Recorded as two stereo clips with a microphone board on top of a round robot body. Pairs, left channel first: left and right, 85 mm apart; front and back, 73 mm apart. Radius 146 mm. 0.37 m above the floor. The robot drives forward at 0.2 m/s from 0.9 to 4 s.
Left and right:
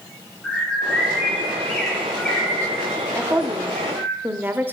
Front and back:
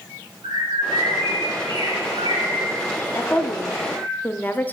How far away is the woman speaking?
About 1.0 m.